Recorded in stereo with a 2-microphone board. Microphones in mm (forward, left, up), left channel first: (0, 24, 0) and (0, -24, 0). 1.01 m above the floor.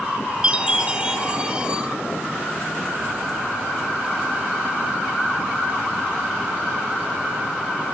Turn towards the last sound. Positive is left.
turn(degrees=-20)  # may be behind; listen again after turning